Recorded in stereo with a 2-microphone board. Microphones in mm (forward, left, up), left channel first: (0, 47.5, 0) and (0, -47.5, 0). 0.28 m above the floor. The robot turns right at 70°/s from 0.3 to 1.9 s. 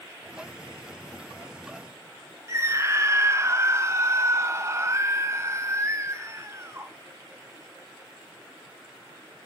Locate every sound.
2.5 s a scream: 35° right (ahead or behind), 1.6 m